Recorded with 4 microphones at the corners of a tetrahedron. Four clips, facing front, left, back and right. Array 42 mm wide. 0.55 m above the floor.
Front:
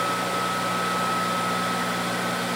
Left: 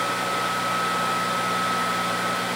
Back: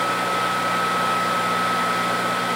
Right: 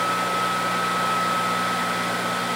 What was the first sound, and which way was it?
Only background noise.